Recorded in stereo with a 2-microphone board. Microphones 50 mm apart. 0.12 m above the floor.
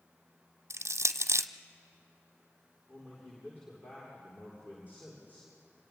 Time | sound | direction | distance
0.7 | crushing | 75° right (ahead or behind) | 0.6 m
2.9 | a man speaking | 40° left (ahead or behind) | 8.5 m